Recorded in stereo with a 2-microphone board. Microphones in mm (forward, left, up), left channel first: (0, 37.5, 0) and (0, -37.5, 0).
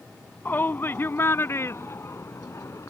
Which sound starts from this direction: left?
A shout, at 0.5 s.